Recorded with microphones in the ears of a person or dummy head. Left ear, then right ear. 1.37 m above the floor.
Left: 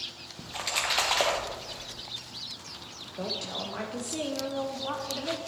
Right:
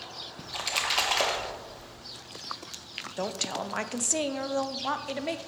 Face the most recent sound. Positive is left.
turn(degrees=-60)  # may be behind; listen again after turning